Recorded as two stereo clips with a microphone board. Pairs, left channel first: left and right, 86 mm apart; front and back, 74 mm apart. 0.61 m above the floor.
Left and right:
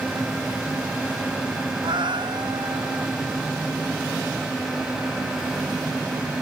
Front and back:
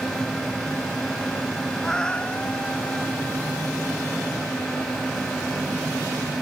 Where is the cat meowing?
80° right; by 3.1 s 65° right.